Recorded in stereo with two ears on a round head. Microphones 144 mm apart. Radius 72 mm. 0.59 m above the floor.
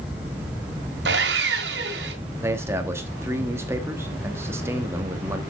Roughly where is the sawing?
Right.